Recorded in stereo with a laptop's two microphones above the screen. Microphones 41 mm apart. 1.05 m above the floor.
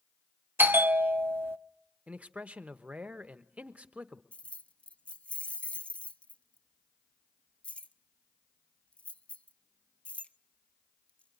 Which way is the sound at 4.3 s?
35° left (ahead or behind).